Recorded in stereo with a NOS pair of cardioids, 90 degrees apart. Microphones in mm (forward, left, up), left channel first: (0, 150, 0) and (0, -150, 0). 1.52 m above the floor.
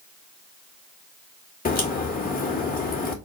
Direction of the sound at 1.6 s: 30° left.